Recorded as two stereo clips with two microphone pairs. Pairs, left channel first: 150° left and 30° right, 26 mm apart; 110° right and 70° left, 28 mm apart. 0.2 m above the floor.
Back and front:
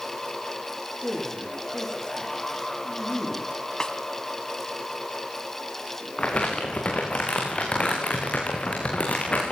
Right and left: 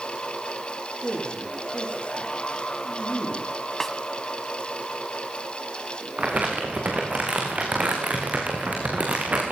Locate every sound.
1.0 s a man speaking: 155° right, 7.5 m
3.8 s a snare drum: straight behind, 1.2 m
6.2 s crumpling: 105° left, 5 m